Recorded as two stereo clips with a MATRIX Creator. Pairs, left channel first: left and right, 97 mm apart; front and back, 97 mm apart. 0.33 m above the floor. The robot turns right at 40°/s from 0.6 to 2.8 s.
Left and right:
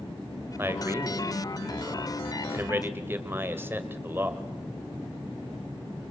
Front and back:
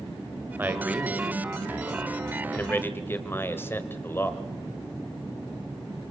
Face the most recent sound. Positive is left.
turn(degrees=-45)